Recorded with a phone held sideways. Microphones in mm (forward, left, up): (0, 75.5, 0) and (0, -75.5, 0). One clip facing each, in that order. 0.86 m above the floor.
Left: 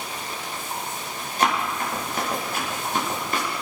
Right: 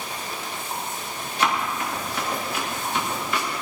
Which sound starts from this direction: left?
Running footsteps, at 1.4 s.